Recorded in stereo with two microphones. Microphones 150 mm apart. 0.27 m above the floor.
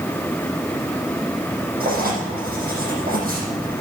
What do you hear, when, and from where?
1.8 s writing: 75° right (ahead or behind), 7.5 m